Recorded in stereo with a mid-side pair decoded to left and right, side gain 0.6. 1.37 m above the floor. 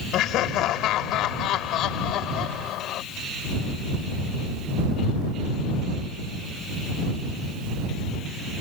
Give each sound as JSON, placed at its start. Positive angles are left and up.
{"t": 0.1, "sound": "laughter", "azimuth_deg": 60}